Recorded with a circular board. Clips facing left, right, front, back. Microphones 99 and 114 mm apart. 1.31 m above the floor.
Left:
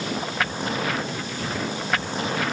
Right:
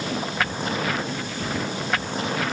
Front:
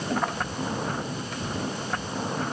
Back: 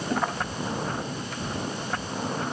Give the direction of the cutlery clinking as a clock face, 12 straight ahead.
I don't hear cutlery clinking.